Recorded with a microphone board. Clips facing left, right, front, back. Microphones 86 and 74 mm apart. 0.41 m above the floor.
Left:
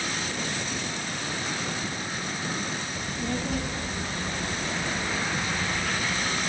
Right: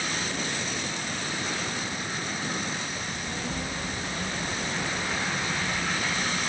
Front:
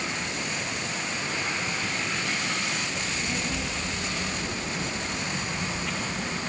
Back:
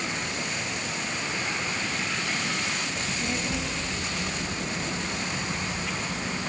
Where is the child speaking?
110° left, 5.5 m; by 6.4 s 90° left, 6 m.